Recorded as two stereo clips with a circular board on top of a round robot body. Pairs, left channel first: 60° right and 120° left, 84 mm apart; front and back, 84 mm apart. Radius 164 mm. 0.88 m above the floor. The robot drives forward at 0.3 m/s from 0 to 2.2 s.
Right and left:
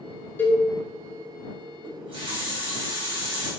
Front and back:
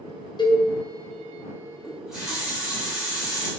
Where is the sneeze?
No sneeze in this recording.